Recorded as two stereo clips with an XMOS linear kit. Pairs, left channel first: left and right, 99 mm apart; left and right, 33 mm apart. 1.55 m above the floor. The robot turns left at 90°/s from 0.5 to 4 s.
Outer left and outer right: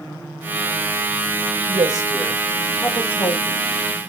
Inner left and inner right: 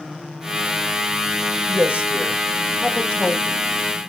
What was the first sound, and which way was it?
A woman speaking, 110° right.